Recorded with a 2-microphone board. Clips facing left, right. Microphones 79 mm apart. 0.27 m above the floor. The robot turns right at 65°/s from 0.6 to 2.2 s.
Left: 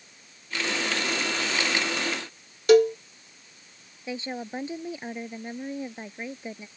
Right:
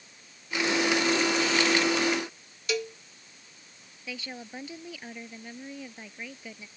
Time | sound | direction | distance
2.7 | a cowbell | 55° left (ahead or behind) | ?
4.1 | a woman speaking | 30° left (ahead or behind) | ?